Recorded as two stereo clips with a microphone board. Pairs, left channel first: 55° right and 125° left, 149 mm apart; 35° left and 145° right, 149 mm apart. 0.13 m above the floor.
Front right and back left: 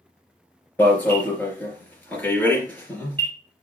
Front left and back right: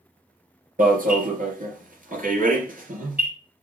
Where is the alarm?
135° right, 3 m.